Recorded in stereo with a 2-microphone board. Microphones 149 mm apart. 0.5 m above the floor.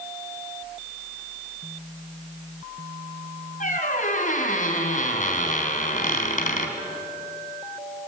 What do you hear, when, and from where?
3.6 s a squeak: 55° left (ahead or behind), 3.5 m